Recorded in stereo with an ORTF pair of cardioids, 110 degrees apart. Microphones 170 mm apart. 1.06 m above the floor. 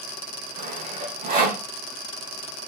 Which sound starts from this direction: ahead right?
Sawing, at 0.6 s.